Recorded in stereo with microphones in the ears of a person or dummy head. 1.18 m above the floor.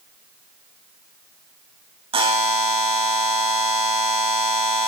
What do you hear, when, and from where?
2.1 s a buzzer: 25° right (ahead or behind), 1.9 m